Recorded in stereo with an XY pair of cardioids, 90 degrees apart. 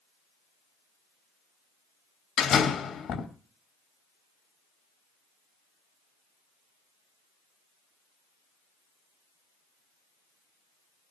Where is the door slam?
65° left, 3 m.